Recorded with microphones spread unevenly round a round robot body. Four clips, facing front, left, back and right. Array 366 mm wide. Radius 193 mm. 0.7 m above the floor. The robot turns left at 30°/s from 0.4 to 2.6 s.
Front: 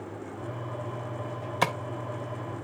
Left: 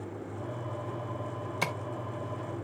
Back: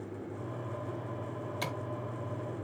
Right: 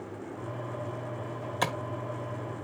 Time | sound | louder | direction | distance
1.6 | tapping | right 4 dB, front 12 dB | 15° right | 1.5 m